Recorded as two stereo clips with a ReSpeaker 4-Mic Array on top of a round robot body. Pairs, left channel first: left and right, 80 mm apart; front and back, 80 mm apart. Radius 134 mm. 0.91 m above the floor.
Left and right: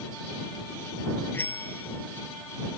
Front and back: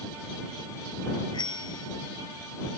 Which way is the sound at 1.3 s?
25° left.